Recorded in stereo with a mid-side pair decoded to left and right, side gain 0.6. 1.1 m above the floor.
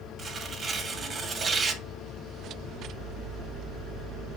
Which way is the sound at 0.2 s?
35° right.